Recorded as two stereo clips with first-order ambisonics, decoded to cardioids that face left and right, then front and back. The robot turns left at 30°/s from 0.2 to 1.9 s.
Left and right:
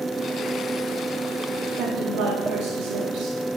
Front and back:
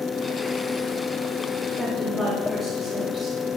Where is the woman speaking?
95° right, 1.7 m; by 3.4 s 100° right, 1.7 m.